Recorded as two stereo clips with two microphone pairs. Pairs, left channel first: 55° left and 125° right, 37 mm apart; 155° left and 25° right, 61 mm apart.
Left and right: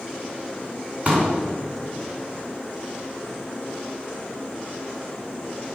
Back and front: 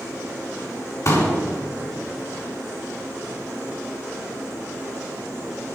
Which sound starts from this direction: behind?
A pop, at 1.1 s.